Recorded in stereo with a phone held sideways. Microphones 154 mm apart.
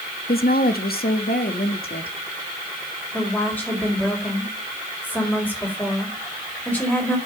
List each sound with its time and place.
0.3 s a woman speaking: 75° left (ahead or behind), 1.1 m; by 2.2 s 80° left, 2 m
3.1 s a woman speaking: 10° left (ahead or behind), 4.5 m